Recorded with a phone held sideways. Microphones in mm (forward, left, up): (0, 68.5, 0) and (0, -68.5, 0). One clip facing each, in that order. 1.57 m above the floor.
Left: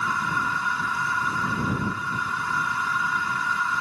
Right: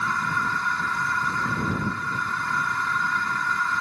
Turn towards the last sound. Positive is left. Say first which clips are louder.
# even
turn(degrees=5)  # may be behind; listen again after turning